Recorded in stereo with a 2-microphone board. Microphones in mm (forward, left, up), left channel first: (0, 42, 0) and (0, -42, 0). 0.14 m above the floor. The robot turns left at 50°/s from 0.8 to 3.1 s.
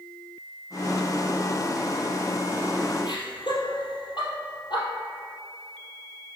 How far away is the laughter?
About 2.5 m.